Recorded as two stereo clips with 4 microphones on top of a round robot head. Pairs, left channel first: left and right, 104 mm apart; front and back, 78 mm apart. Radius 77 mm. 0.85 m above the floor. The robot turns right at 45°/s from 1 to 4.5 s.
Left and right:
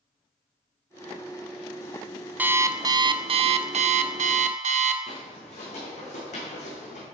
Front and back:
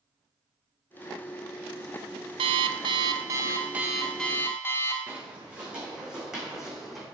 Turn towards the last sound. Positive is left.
turn(degrees=90)